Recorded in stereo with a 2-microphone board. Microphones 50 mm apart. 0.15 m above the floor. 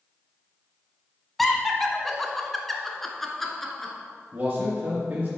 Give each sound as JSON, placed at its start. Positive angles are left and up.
{"t": 1.4, "sound": "laughter", "side_deg": 5, "distance_m": 1.0}
{"t": 4.3, "sound": "a man speaking", "side_deg": -30, "distance_m": 2.5}